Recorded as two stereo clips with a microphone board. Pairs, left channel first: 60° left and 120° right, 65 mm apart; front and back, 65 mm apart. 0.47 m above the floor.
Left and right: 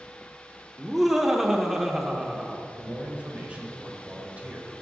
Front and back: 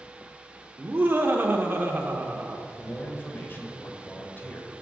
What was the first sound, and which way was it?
Laughter, 160° left.